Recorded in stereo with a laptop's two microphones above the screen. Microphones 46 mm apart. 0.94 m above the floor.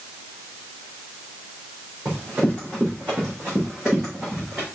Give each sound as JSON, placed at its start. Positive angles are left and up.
{"t": 2.0, "sound": "running footsteps", "side_deg": -35, "distance_m": 4.0}